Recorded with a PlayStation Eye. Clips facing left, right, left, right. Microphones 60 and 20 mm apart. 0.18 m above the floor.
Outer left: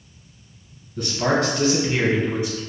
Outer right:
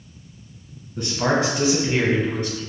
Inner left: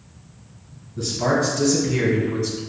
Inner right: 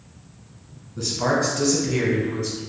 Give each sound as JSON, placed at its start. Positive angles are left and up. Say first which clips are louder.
{"t": 1.0, "sound": "a man speaking", "louder": "even, inner left 1 dB", "side_deg": -30, "distance_m": 1.5}